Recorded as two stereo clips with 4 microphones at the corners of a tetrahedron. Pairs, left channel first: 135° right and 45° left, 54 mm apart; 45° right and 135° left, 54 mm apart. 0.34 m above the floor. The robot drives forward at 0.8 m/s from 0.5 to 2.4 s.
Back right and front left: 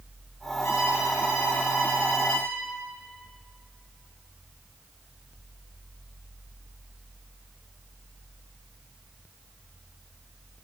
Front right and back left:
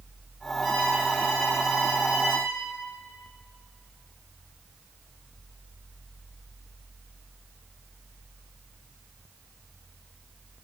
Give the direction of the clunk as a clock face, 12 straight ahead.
No clunk in this recording.